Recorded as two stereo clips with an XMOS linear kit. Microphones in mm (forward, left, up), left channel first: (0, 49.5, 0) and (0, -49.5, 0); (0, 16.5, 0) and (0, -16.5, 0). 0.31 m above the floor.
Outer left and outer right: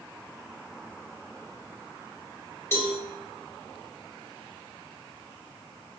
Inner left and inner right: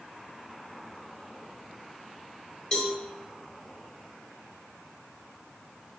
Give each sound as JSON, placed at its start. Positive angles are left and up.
{"t": 2.7, "sound": "a cowbell", "side_deg": 30, "distance_m": 0.8}